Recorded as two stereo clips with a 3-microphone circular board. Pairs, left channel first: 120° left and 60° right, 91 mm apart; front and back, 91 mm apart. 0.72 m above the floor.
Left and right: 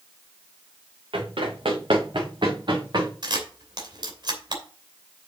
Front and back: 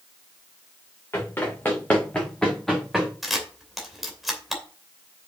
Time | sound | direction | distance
1.1 | running footsteps | 65° right | 4 m
3.2 | a camera shutter | 95° right | 2.5 m